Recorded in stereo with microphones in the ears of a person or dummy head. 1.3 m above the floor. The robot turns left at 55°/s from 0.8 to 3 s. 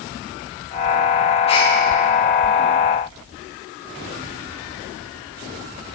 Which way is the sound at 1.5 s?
20° left (ahead or behind).